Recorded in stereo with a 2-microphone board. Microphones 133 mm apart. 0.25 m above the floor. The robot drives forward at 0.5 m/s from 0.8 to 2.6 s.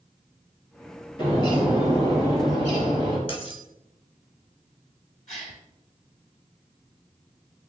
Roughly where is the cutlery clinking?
Left.